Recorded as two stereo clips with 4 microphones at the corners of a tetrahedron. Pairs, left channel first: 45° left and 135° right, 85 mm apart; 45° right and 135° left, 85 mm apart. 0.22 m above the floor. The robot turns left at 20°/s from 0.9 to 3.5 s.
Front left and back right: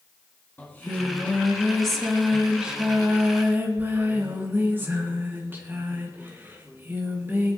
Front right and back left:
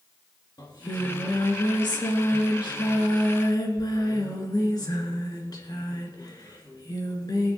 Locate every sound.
0.6 s singing: 20° right, 3 m; by 7.6 s 75° right, 3 m